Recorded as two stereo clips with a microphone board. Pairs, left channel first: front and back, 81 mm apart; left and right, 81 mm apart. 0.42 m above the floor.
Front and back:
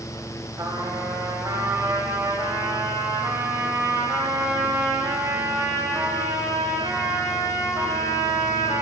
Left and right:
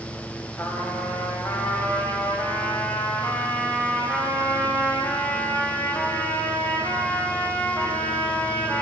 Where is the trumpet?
145° left, 1.5 m.